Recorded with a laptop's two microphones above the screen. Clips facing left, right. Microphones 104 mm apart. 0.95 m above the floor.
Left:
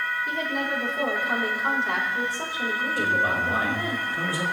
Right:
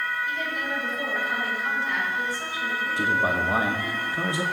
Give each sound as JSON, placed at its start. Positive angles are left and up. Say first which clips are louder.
{"t": 0.3, "sound": "a woman speaking", "louder": "left 2 dB", "side_deg": 80, "distance_m": 4.5}
{"t": 3.0, "sound": "a man speaking", "louder": "right 1 dB", "side_deg": -20, "distance_m": 1.5}